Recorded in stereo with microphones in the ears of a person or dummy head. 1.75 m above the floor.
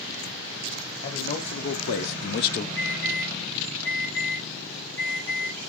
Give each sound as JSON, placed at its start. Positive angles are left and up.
{"t": 1.0, "sound": "a man speaking", "side_deg": 55, "distance_m": 1.8}
{"t": 2.8, "sound": "an alarm", "side_deg": 70, "distance_m": 6.5}